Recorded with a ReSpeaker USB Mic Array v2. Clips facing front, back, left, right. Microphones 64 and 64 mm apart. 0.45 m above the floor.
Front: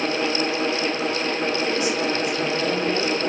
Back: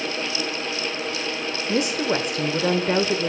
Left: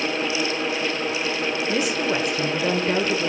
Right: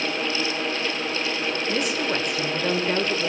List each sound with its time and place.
1.7 s a woman speaking: 175° left, 1.1 m